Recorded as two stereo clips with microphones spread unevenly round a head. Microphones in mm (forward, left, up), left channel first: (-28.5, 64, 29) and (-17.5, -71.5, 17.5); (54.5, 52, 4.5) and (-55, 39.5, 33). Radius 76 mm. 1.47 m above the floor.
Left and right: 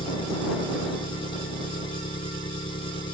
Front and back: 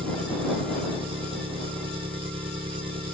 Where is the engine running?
150° left.